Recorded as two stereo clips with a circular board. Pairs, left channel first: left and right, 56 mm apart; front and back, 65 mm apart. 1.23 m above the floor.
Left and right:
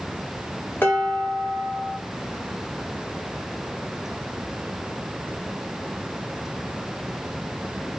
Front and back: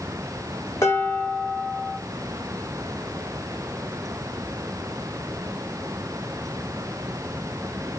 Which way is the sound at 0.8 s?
35° left.